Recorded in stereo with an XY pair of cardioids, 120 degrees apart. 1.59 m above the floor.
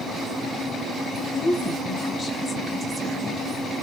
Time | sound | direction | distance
1.3 | a woman speaking | 50° left | 1.4 m